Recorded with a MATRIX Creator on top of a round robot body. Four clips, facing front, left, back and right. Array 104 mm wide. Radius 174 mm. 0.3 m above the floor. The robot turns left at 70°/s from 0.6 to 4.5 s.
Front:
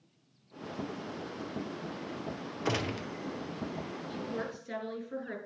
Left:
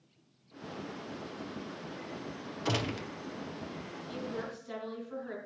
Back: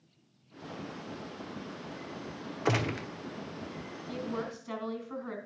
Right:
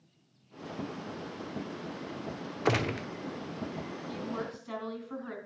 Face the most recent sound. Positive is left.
turn(degrees=-155)